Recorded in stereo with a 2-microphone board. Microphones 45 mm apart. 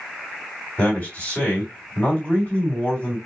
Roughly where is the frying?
I don't hear frying.